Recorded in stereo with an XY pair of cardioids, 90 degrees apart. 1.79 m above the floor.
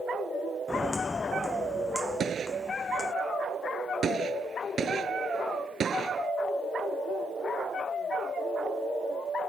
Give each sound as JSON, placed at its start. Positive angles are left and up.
{"t": 0.7, "sound": "footsteps", "azimuth_deg": 25}
{"t": 2.2, "sound": "a gunshot", "azimuth_deg": -55}